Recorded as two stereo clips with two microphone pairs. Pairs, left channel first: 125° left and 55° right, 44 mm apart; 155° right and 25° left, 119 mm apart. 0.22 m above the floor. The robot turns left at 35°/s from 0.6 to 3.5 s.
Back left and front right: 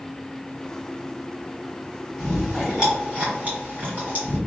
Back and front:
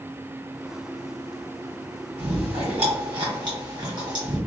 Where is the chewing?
40° left, 1.9 m; by 4.4 s 5° right, 1.9 m.